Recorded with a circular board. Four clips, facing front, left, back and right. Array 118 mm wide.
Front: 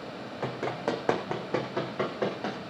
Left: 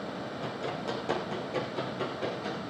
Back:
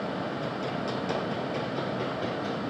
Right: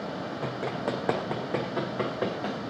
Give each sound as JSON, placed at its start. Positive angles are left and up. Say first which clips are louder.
{"t": 0.4, "sound": "running footsteps", "louder": "right 4 dB, even", "azimuth_deg": -30, "distance_m": 3.5}